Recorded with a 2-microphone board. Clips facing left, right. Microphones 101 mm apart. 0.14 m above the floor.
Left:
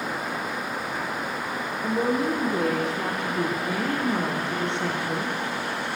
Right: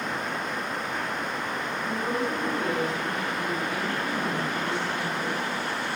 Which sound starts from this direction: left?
A woman speaking, at 1.8 s.